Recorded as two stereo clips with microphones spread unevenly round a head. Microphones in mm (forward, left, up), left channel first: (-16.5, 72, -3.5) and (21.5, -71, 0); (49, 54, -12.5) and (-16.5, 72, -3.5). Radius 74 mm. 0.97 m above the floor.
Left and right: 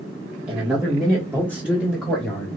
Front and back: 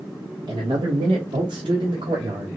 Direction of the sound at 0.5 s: 155° right.